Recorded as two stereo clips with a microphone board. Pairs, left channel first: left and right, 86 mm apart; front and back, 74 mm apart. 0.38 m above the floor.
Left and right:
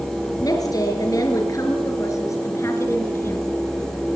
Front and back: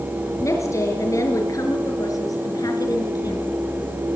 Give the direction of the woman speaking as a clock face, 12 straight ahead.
10 o'clock.